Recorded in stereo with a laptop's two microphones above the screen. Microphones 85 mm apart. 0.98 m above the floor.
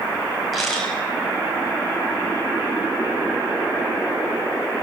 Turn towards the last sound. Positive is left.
turn(degrees=0)  # may be behind; listen again after turning